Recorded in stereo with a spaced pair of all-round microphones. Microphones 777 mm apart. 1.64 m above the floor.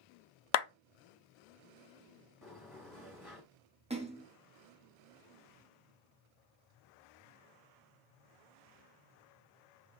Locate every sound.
0.5 s a clap: 65° left (ahead or behind), 0.6 m
2.4 s a sliding door: 30° left (ahead or behind), 2.5 m
3.9 s a splash: 10° right (ahead or behind), 0.9 m